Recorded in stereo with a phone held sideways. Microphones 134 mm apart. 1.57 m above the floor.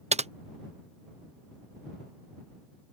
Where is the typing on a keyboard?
60° right (ahead or behind).